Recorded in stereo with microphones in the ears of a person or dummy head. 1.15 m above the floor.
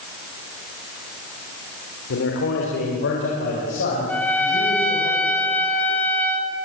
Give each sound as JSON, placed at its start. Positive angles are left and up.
{"t": 2.1, "sound": "a man speaking", "side_deg": 60, "distance_m": 3.0}
{"t": 4.1, "sound": "a trumpet", "side_deg": 5, "distance_m": 2.0}